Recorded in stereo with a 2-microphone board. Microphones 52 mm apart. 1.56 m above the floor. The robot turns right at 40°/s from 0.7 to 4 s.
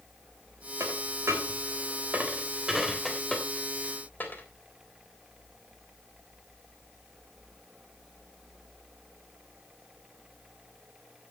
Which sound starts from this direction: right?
A dropped coin, at 0.8 s.